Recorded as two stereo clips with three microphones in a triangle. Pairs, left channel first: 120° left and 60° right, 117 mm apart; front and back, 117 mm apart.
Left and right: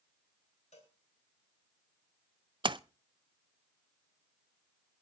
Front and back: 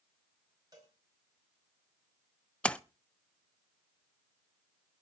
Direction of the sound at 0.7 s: 125° left.